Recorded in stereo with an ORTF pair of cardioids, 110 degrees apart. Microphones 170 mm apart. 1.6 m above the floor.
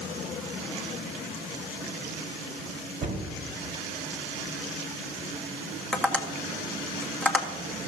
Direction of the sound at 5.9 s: 5° left.